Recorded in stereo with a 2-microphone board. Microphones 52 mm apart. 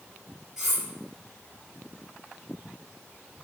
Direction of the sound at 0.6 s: 10° right (ahead or behind).